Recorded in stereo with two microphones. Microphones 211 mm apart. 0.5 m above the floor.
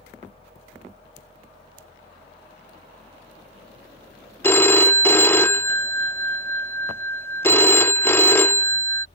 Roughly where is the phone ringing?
Centre.